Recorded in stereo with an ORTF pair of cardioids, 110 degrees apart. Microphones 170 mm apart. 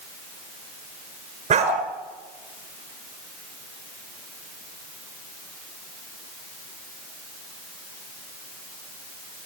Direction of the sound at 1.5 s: 45° right.